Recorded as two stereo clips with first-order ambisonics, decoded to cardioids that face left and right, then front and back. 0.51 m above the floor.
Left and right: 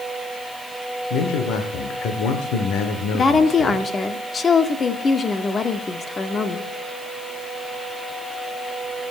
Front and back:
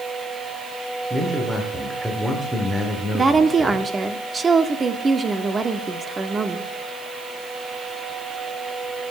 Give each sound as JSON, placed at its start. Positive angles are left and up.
{"t": 1.1, "sound": "a man speaking", "azimuth_deg": 100, "distance_m": 1.5}
{"t": 3.1, "sound": "a woman speaking", "azimuth_deg": 135, "distance_m": 0.7}